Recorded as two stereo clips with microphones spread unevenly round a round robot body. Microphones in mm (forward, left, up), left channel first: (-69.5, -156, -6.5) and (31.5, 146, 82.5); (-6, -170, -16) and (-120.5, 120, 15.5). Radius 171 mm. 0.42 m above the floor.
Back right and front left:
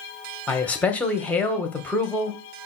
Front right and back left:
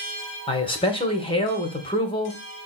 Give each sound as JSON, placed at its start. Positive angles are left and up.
{"t": 0.5, "sound": "a man speaking", "azimuth_deg": -85, "distance_m": 0.8}